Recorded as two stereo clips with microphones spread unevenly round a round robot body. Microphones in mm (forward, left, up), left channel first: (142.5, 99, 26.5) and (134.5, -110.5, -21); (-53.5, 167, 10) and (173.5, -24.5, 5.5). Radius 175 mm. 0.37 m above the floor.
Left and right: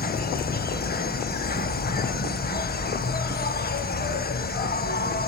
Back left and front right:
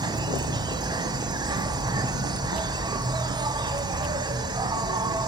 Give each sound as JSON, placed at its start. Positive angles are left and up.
{"t": 0.0, "sound": "an insect", "azimuth_deg": 35, "distance_m": 1.0}